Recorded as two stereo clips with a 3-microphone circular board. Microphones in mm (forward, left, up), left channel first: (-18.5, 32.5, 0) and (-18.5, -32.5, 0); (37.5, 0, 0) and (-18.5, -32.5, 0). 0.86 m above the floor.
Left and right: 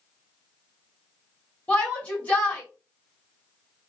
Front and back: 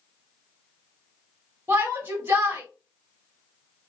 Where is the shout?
150° left, 2.0 m.